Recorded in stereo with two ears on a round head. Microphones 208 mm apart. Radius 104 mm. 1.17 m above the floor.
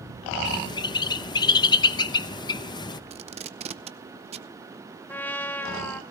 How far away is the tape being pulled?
About 0.6 m.